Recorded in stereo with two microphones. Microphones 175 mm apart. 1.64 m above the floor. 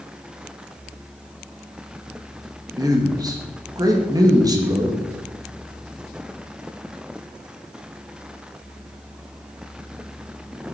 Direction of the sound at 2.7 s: 20° right (ahead or behind).